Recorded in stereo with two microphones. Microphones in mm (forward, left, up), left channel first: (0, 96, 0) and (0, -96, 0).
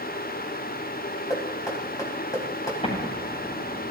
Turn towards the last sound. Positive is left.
turn(degrees=35)  # may be behind; listen again after turning